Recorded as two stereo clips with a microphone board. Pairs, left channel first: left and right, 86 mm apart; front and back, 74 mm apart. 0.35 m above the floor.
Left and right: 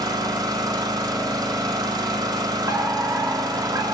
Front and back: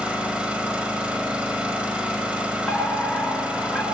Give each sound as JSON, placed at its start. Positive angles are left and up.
{"t": 0.0, "sound": "an engine running", "azimuth_deg": -110, "distance_m": 1.3}
{"t": 2.7, "sound": "a fire alarm", "azimuth_deg": -75, "distance_m": 3.5}